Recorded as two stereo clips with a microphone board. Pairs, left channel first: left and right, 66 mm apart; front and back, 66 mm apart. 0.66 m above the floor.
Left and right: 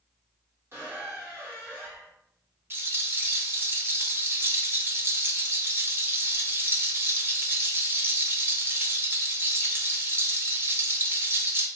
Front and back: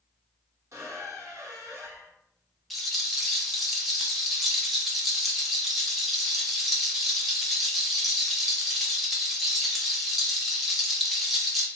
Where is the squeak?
145° right, 1.3 m.